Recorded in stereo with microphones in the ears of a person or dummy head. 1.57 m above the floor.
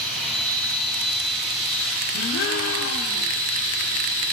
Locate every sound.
0.0 s a machine running: 35° right (ahead or behind), 2.5 m
2.1 s a gasp: 65° left (ahead or behind), 0.9 m